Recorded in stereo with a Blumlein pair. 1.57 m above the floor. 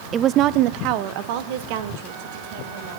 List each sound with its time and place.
0.1 s a woman speaking: 20° right, 0.5 m; by 3.0 s 50° right, 4 m